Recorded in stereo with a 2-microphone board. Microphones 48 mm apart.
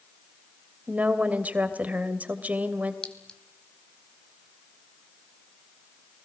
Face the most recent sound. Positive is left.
turn(degrees=15)  # may be behind; listen again after turning